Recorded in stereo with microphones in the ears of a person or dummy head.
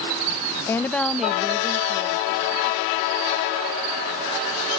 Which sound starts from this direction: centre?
A woman speaking, at 0.7 s.